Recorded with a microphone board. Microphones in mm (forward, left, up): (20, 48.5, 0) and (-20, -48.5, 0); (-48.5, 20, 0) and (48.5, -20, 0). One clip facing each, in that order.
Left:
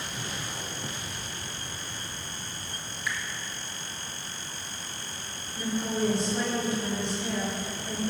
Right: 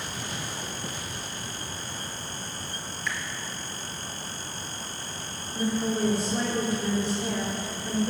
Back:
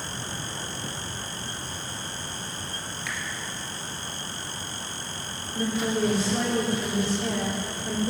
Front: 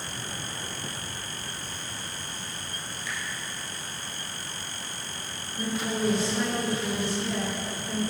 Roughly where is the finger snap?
Behind left.